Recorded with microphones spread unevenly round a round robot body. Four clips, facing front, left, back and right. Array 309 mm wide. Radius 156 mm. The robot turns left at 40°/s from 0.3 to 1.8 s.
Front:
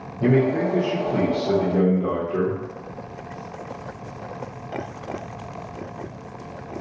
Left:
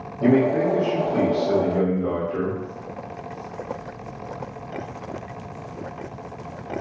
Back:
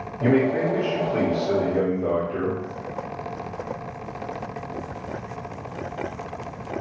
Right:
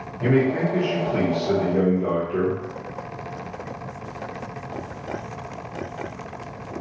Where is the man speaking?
40° left, 1.2 m; by 2.6 s 20° right, 1.2 m.